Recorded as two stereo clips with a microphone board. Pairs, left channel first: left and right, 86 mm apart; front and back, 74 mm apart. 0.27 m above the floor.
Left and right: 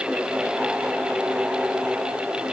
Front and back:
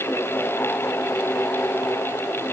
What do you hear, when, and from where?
Only background noise.